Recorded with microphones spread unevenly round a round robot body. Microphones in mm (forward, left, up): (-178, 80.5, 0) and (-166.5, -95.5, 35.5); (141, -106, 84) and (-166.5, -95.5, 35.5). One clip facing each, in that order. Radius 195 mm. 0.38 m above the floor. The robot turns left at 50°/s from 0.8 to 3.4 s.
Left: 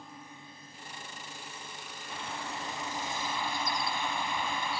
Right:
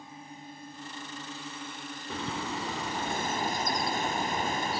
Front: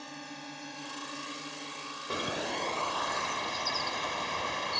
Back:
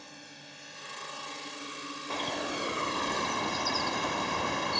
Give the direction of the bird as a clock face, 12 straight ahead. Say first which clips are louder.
Right 6 dB, even; 2 o'clock.